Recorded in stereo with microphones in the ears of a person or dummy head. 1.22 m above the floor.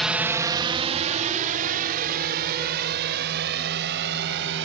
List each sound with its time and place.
0.0 s a drone: 5° left (ahead or behind); by 4.7 s 60° right (ahead or behind)